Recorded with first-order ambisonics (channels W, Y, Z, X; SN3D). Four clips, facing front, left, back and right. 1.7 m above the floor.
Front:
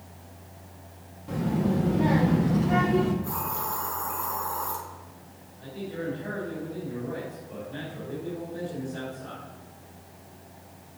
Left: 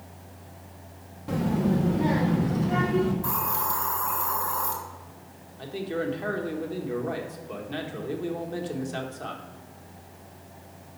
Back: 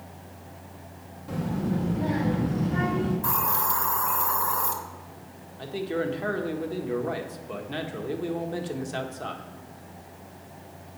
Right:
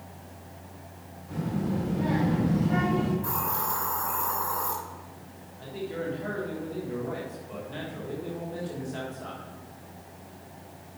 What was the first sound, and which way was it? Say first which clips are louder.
A child speaking: left 5 dB, front 2 dB; 90° left.